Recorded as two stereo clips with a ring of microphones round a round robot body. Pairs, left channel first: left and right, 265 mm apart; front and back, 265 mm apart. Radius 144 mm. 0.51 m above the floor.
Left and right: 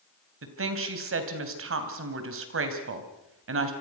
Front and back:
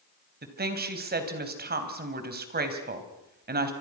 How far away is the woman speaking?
About 3.5 m.